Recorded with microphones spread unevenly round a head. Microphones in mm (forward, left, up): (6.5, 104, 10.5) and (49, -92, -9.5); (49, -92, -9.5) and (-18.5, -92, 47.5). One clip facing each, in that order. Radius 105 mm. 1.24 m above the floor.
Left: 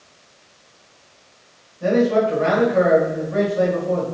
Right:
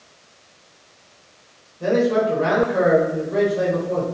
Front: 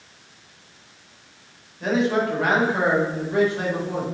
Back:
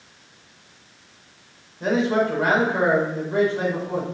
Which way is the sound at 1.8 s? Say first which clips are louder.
Left 1 dB, back 1 dB; 130° right.